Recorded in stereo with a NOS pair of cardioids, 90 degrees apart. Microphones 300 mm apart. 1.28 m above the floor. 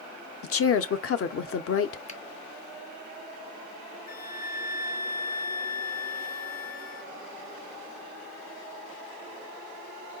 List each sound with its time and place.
0.4 s a woman speaking: 50° left, 0.7 m
2.1 s a finger snap: 25° left, 0.7 m
4.1 s a flute: 30° left, 0.8 m